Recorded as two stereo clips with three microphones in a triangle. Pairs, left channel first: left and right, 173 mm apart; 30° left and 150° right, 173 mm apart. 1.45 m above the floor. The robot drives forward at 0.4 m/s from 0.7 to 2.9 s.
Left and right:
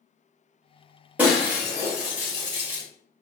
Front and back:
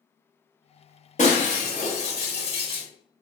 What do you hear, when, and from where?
1.2 s breaking glass: 10° right, 1.6 m; by 2.9 s 20° right, 1.1 m